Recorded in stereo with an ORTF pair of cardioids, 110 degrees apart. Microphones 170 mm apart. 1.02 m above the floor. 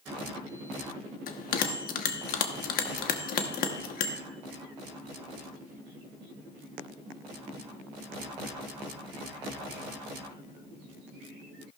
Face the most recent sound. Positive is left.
turn(degrees=60)